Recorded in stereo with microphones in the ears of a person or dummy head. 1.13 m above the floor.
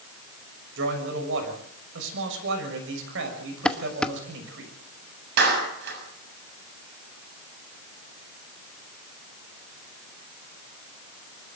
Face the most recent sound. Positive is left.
turn(degrees=-70)  # may be behind; listen again after turning